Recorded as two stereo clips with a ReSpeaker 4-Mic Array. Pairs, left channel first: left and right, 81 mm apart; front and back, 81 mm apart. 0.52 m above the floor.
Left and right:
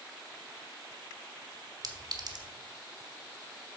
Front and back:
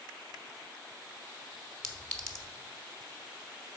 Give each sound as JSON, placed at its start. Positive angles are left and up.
{"t": 1.8, "sound": "a clink", "azimuth_deg": -75, "distance_m": 1.2}